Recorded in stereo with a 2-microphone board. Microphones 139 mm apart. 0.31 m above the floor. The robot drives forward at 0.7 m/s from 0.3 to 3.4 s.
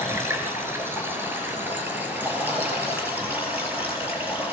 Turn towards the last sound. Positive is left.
turn(degrees=-10)  # may be behind; listen again after turning